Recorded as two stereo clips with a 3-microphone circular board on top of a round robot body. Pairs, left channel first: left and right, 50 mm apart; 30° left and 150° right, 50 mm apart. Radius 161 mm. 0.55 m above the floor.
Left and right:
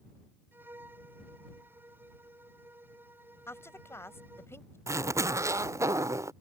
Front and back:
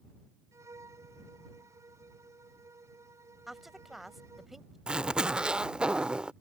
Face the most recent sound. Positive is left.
turn(degrees=-80)